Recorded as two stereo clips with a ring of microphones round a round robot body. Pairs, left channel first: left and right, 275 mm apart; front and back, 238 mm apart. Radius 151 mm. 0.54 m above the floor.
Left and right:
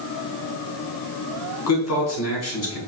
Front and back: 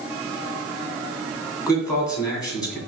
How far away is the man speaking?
About 2 m.